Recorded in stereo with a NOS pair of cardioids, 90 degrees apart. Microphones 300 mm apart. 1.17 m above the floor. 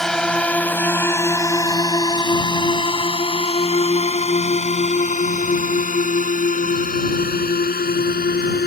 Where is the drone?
Straight ahead; by 8.7 s 35° left.